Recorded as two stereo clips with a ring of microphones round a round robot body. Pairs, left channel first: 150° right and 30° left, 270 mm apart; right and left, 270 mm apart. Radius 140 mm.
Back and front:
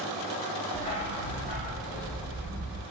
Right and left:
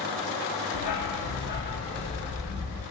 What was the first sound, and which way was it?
A dog barking, 70° right.